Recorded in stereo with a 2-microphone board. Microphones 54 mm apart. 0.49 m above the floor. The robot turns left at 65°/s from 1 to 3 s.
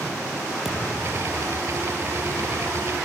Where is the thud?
5° right (ahead or behind), 5 m; by 1.4 s 30° right (ahead or behind), 5 m.